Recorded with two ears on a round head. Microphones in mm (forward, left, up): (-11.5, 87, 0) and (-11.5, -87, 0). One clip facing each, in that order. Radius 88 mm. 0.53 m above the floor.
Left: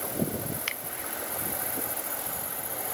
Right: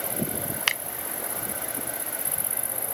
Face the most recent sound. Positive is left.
turn(degrees=-75)  # may be behind; listen again after turning